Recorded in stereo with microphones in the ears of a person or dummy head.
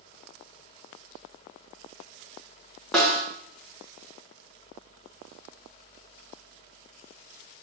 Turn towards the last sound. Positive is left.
turn(degrees=0)  # may be behind; listen again after turning